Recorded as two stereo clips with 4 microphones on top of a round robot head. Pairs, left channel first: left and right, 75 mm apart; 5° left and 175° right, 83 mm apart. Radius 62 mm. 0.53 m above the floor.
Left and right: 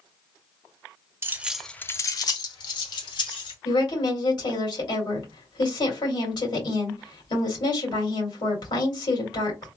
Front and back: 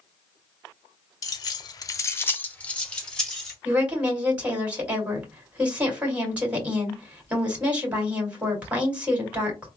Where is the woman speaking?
115° left, 2 m.